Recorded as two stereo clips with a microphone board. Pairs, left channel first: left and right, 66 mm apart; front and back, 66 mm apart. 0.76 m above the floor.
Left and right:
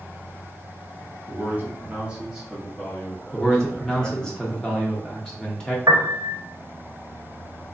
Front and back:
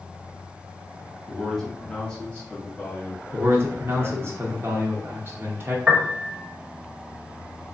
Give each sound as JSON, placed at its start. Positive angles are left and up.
{"t": 1.3, "sound": "a man speaking", "azimuth_deg": -90, "distance_m": 1.2}
{"t": 3.3, "sound": "a man speaking", "azimuth_deg": 160, "distance_m": 0.7}
{"t": 5.9, "sound": "a piano", "azimuth_deg": -105, "distance_m": 0.6}